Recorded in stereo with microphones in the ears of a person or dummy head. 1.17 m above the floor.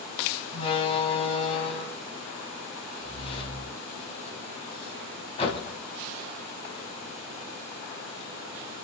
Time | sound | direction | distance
0.5 | a door slam | 35° left (ahead or behind) | 6.5 m